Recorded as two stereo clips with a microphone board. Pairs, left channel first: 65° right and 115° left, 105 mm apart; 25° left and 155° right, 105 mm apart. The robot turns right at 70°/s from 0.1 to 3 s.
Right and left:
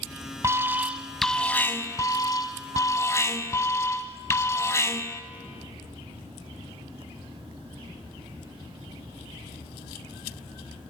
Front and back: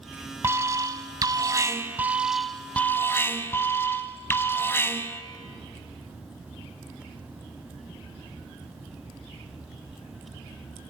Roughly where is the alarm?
Behind left.